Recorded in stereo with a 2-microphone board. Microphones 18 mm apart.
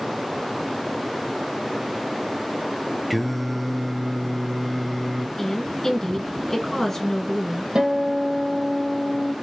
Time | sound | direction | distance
3.1 | singing | 5° right (ahead or behind) | 0.6 m
5.4 | a woman speaking | 25° left (ahead or behind) | 1.7 m
7.8 | a guitar | 65° right (ahead or behind) | 1.5 m